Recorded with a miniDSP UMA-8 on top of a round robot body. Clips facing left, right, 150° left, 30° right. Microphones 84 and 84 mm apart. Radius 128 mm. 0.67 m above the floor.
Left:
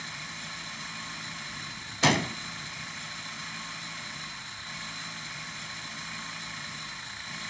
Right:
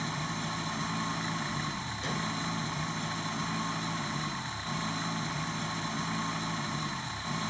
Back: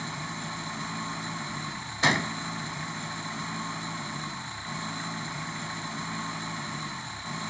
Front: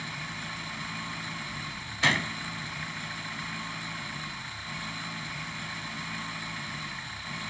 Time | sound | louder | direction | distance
0.0 | an engine running | right 7 dB, back 3 dB | 145° right | ?
2.0 | a gunshot | left 10 dB, back 2 dB | 80° left | ?